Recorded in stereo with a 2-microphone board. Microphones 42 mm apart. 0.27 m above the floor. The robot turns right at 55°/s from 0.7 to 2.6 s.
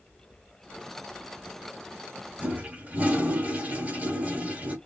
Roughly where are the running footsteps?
No running footsteps in this recording.